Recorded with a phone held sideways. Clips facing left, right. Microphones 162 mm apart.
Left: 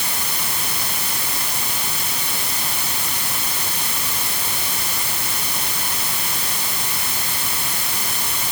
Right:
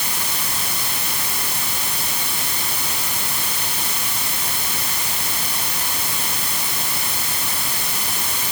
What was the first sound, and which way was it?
Only background noise.